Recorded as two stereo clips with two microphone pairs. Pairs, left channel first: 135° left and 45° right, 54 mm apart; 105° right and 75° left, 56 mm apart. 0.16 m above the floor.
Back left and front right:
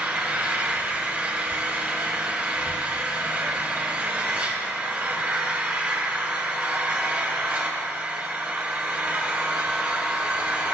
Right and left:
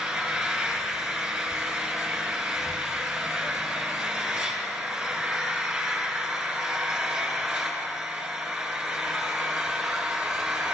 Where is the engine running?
5° right, 1.6 m.